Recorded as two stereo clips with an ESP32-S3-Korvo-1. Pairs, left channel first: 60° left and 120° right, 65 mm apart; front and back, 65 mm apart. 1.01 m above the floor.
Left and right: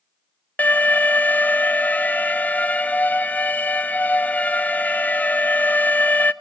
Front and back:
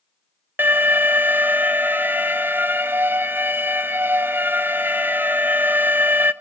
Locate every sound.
0.6 s an alarm: 125° left, 0.6 m